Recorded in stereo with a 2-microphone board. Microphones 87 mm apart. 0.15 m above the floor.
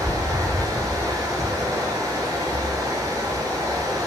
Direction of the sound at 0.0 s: 40° right (ahead or behind).